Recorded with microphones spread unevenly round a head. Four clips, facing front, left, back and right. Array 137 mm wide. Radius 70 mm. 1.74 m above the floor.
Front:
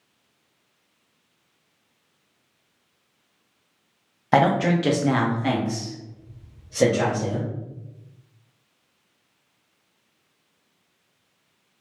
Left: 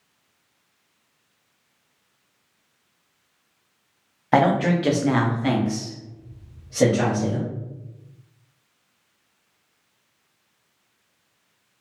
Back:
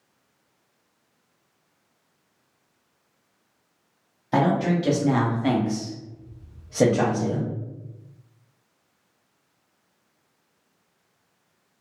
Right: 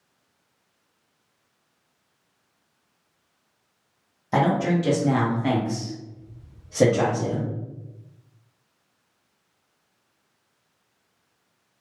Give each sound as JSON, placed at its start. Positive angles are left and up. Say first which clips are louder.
{"t": 4.3, "sound": "a man speaking", "louder": "left 3 dB, front 3 dB", "azimuth_deg": 40, "distance_m": 0.8}